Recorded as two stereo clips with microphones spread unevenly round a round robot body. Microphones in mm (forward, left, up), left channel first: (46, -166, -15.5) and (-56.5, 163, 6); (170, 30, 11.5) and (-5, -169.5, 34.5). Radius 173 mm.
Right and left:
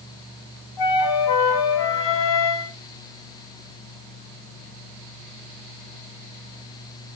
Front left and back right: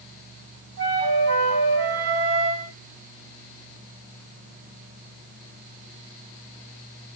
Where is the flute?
100° right, 1.8 m.